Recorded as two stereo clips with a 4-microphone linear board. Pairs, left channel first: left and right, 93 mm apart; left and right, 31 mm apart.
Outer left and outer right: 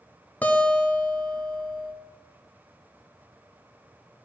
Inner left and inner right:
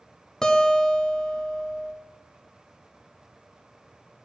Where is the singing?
No singing in this recording.